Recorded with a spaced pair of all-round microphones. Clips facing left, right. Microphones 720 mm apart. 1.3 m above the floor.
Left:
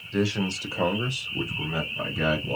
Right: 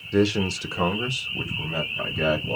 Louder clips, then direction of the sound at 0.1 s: Right 5 dB; 75° right (ahead or behind).